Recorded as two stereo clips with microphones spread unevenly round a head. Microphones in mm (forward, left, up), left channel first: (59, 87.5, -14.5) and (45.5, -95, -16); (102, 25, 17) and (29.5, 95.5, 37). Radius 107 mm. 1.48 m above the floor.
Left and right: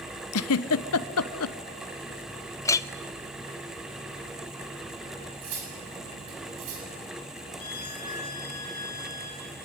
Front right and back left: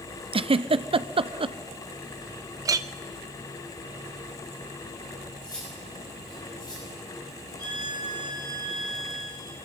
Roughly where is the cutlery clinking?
Behind right.